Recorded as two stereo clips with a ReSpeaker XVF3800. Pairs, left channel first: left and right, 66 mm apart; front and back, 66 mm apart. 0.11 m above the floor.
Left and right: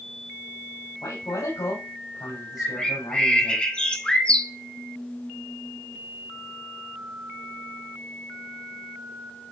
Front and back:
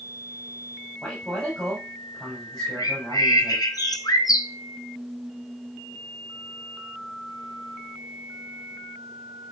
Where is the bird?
15° left, 0.9 m.